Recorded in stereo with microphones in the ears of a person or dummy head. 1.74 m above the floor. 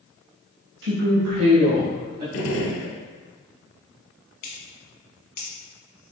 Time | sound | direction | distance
0.8 | a woman speaking | 70° right (ahead or behind) | 0.5 m
2.3 | a gunshot | 75° left (ahead or behind) | 0.8 m
4.4 | scissors | 45° left (ahead or behind) | 1.1 m